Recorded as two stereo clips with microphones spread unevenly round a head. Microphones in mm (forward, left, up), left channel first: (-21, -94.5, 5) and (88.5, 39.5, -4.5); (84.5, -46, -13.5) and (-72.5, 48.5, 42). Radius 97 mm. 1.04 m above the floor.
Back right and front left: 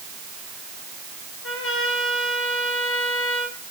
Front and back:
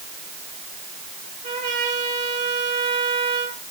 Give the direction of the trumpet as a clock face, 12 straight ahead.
5 o'clock.